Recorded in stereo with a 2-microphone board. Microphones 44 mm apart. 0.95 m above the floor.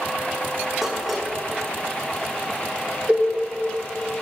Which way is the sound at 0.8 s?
10° right (ahead or behind).